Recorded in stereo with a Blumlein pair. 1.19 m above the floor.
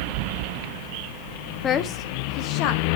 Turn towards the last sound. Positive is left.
turn(degrees=45)